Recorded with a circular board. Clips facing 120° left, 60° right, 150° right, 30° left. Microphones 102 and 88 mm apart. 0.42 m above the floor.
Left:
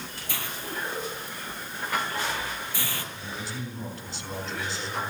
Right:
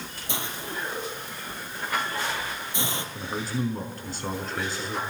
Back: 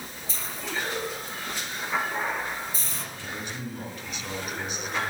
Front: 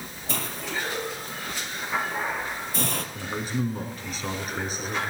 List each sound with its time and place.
0.3 s a hiss: 10° left, 3 m
3.1 s a man speaking: 20° right, 5 m